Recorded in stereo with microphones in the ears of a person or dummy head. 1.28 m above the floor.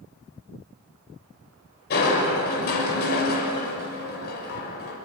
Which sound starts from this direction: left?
Crushing, at 1.9 s.